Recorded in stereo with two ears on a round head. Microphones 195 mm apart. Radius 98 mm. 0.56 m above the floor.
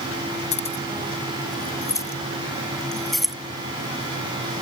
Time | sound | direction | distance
0.5 | keys jangling | 35° left (ahead or behind) | ?